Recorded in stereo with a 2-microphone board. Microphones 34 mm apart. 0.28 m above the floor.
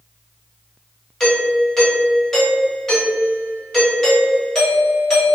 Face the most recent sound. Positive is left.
turn(degrees=20)  # may be behind; listen again after turning